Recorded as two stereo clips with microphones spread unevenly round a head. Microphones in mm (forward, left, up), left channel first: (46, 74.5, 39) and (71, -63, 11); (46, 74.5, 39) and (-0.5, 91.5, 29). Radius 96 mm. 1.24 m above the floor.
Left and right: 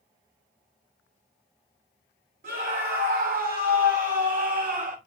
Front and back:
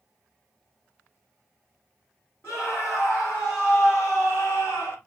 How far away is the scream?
About 4 m.